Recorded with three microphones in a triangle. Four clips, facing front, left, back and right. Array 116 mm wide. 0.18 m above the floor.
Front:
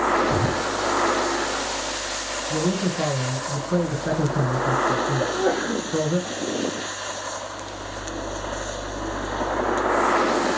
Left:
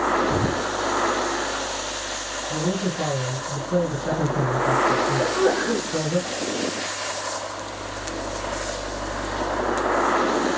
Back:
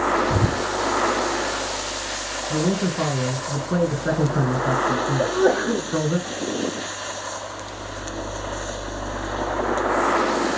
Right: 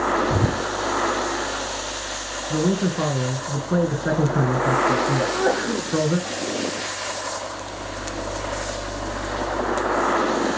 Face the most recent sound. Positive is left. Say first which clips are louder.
# left 1 dB, back 3 dB
turn(degrees=170)